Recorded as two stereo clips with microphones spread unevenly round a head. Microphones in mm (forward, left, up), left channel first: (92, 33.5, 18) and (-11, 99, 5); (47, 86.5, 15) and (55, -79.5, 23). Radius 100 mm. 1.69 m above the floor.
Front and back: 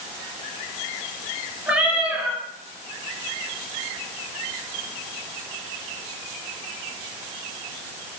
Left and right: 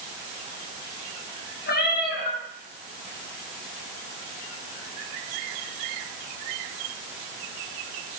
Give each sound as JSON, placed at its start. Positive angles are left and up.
{"t": 1.7, "sound": "a cat meowing", "azimuth_deg": 70, "distance_m": 7.5}